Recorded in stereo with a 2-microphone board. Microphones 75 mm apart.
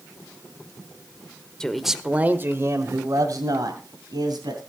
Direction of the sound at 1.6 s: 10° left (ahead or behind).